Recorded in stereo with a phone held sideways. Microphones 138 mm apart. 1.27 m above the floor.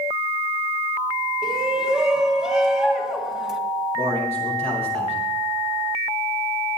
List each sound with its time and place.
1.4 s a shout: 5° right (ahead or behind), 2 m
4.0 s a man speaking: 45° right (ahead or behind), 5.5 m